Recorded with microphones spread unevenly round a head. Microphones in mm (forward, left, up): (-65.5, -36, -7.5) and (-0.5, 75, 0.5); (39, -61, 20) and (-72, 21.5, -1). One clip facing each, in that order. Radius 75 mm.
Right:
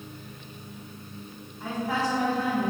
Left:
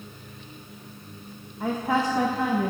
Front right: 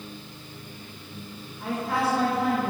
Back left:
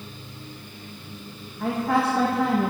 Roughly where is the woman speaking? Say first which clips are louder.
Left 4 dB, back left 4 dB; left.